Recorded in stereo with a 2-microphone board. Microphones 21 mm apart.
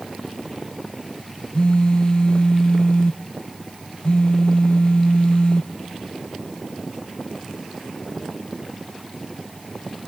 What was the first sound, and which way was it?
A phone buzzing, 50° left (ahead or behind).